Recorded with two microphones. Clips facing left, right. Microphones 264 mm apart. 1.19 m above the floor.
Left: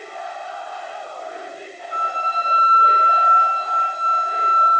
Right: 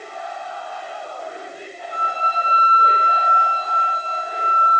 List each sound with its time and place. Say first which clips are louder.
1.9 s a flute: right 1 dB; 45° right (ahead or behind), 5.5 m